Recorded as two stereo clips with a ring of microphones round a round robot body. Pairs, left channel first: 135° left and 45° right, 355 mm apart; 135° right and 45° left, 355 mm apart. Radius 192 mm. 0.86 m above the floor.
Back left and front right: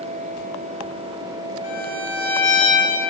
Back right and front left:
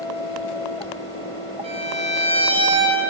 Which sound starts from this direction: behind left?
A violin, at 1.6 s.